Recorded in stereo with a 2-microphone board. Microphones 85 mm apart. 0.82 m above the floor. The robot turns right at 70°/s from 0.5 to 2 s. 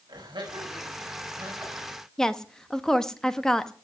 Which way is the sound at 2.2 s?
5° left (ahead or behind).